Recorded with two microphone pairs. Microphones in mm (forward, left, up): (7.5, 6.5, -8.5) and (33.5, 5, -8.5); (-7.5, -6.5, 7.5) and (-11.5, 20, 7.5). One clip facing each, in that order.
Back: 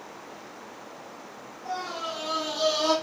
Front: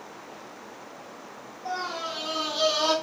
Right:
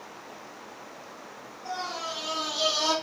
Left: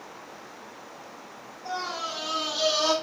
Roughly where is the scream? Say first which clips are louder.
Front 1 dB, left 2 dB; ahead.